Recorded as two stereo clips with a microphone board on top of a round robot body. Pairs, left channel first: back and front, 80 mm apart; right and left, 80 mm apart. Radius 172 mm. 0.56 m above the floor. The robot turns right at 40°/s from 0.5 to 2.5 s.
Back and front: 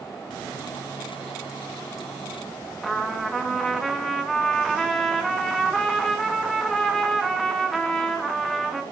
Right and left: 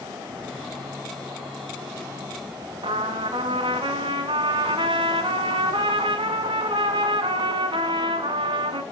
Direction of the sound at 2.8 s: 90° left.